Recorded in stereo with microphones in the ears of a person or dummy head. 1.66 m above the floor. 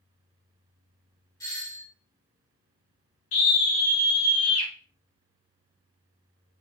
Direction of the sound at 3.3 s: 70° left (ahead or behind).